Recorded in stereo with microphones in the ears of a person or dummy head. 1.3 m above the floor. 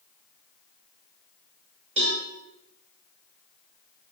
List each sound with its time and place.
2.0 s a cowbell: 30° right (ahead or behind), 6.5 m